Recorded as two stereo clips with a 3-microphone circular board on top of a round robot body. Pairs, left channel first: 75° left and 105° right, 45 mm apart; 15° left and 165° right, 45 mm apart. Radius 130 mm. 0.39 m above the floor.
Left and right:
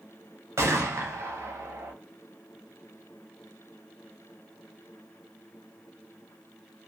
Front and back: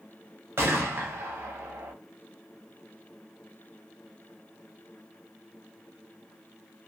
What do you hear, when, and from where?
0.6 s a gunshot: 130° right, 0.7 m